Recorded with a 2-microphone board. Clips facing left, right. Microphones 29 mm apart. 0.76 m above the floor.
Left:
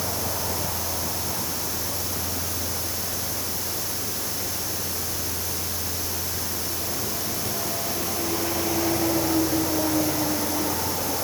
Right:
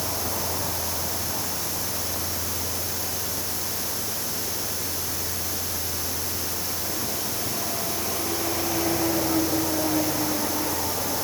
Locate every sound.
Only background noise.